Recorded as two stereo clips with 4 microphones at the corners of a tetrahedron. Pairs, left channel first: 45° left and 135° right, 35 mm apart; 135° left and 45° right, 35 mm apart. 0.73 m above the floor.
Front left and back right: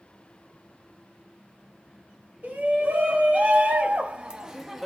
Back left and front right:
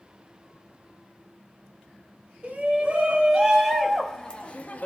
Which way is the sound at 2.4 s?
100° right.